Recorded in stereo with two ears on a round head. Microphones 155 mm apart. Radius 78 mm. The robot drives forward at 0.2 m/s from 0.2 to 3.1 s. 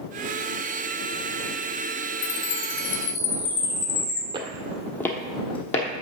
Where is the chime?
80° left, 1.9 m; by 4.2 s 85° left, 1.9 m.